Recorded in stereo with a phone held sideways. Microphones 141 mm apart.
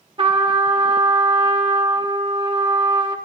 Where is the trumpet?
40° right (ahead or behind), 1.2 m.